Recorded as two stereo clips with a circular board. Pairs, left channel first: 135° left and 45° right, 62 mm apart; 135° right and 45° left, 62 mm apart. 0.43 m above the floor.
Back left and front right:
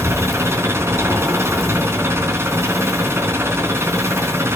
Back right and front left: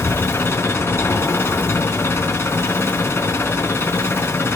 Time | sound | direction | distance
0.0 | an engine running | 90° right | 4 m